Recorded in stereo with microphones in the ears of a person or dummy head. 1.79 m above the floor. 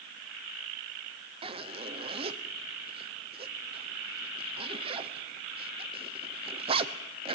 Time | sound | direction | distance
1.4 | a zipper | 35° right (ahead or behind) | 1.0 m